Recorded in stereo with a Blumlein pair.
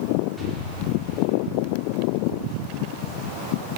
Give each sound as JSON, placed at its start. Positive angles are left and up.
{"t": 0.4, "sound": "an explosion", "azimuth_deg": 0, "distance_m": 5.0}